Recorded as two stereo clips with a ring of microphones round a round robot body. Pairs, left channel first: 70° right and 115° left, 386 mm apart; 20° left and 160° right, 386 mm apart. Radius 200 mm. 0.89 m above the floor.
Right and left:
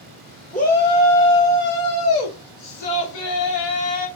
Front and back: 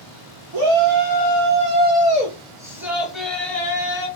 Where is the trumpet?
No trumpet in this recording.